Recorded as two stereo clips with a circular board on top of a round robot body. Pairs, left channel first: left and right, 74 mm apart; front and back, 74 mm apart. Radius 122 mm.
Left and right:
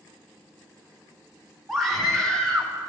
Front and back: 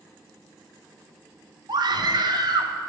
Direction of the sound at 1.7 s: Straight behind.